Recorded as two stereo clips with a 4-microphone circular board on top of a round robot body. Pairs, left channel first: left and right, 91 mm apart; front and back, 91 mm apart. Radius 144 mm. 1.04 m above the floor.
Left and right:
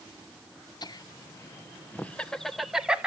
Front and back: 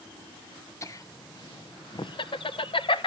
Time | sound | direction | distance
0.8 | laughter | 55° left | 1.2 m